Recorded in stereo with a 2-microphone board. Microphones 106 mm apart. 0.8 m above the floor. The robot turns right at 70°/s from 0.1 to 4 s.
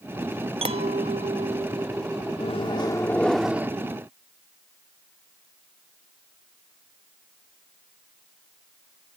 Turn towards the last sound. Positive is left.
turn(degrees=-135)